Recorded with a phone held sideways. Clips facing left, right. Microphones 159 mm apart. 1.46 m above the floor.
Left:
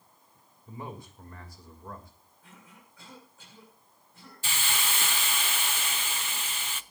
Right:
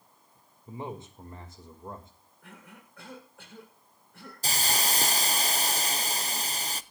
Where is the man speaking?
25° right (ahead or behind), 2.5 m.